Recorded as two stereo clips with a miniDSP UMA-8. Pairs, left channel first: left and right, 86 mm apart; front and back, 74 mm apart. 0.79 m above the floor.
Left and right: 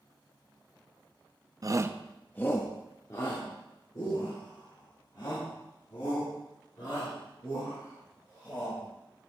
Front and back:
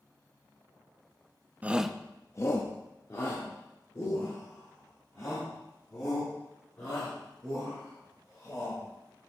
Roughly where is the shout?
Behind right.